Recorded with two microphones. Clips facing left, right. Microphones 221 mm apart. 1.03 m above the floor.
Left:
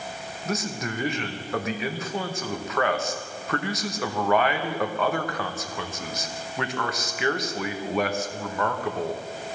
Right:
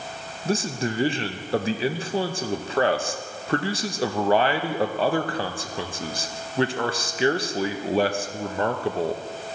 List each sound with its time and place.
0.5 s a man speaking: 30° right (ahead or behind), 0.7 m